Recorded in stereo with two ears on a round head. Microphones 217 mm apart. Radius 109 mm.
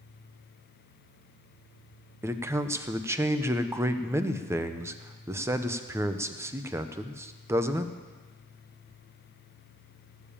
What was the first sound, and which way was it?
A man speaking, 10° right (ahead or behind).